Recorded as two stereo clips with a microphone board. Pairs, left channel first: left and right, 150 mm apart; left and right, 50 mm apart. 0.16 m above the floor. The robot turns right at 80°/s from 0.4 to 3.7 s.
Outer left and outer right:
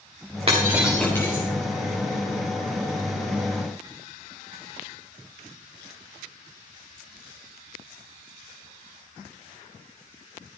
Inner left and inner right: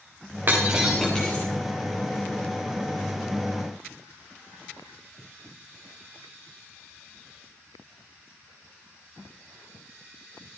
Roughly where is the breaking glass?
Right.